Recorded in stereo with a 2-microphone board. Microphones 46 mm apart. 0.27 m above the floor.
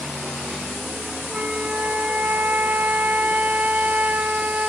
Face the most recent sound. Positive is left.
turn(degrees=-35)  # may be behind; listen again after turning